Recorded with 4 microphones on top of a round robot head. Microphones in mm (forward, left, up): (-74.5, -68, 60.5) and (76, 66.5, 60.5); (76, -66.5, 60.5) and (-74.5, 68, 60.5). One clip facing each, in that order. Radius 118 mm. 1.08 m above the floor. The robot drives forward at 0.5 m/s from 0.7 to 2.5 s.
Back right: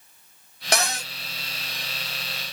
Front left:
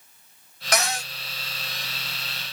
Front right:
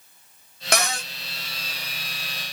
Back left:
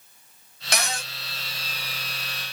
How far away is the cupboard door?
About 0.7 m.